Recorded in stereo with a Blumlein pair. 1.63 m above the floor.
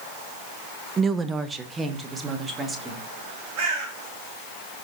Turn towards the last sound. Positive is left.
turn(degrees=-40)